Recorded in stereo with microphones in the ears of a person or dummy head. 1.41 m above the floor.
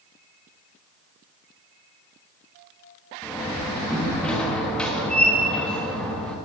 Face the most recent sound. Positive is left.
turn(degrees=0)  # may be behind; listen again after turning